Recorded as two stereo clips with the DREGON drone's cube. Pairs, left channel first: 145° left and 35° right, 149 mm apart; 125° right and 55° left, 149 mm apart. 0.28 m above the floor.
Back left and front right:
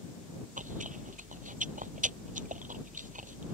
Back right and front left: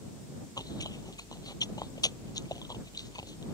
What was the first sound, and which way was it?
Chewing, 60° right.